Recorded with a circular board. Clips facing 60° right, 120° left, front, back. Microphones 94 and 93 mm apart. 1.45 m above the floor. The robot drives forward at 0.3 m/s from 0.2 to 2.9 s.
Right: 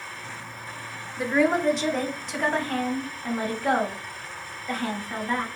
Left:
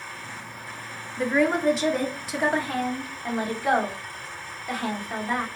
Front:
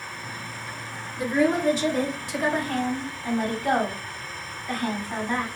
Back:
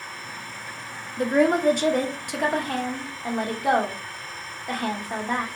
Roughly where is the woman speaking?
Behind right.